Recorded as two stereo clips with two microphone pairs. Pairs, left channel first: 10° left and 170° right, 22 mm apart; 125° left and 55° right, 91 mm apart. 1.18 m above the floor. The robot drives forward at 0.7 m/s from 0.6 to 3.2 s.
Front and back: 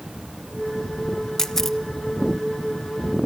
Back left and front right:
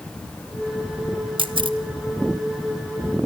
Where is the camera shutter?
50° right, 1.3 m; by 1.8 s 60° right, 1.2 m.